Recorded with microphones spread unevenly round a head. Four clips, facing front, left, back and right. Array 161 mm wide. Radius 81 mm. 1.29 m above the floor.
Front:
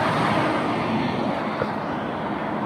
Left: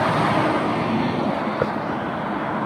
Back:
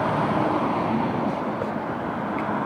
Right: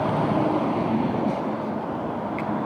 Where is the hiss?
85° left.